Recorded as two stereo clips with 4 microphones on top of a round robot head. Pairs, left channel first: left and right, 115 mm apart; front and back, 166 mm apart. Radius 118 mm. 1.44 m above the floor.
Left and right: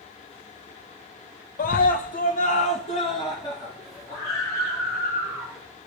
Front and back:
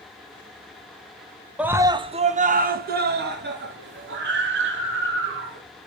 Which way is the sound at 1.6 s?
95° left.